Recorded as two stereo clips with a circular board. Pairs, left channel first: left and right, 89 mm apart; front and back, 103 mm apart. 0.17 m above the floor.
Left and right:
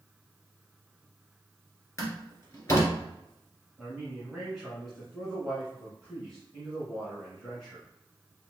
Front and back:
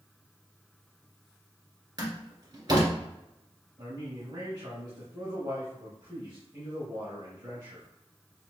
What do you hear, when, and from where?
2.0 s a door slam: 145° left, 1.8 m
3.8 s a man speaking: straight behind, 2 m